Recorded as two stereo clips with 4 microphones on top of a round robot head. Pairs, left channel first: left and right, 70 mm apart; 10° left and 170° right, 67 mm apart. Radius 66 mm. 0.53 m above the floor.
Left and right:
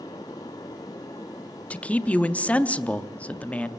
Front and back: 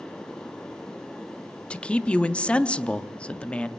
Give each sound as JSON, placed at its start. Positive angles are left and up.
{"t": 1.7, "sound": "a man speaking", "azimuth_deg": 55, "distance_m": 0.6}